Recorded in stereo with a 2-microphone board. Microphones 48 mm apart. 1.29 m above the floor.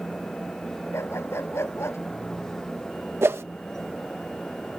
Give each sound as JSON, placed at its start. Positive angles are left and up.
{"t": 0.9, "sound": "a dog barking", "side_deg": 80}
{"t": 3.2, "sound": "a whoosh", "side_deg": -80}